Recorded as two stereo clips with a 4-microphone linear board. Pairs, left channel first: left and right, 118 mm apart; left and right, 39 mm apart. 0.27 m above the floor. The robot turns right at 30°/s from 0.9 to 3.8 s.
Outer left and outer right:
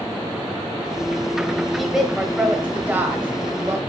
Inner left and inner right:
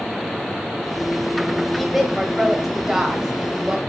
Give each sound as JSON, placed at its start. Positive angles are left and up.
{"t": 1.7, "sound": "a woman speaking", "side_deg": 0, "distance_m": 1.3}